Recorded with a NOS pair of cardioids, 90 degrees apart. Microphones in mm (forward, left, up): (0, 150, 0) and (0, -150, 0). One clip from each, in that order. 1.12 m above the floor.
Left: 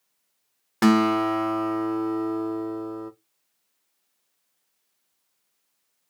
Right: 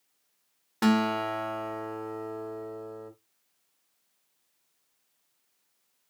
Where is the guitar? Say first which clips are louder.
Left 6 dB; 25° left, 0.5 m.